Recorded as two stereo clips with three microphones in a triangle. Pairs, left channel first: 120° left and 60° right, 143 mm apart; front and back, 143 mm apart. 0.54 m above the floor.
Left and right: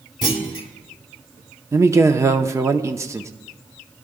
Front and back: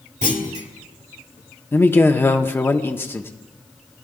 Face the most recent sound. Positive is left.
turn(degrees=-45)